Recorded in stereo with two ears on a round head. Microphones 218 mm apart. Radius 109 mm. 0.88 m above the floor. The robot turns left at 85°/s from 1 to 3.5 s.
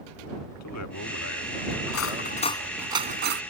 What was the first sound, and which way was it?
A man speaking, 80° left.